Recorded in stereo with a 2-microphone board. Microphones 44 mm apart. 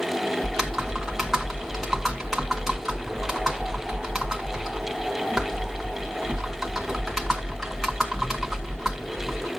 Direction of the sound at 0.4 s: 5° right (ahead or behind).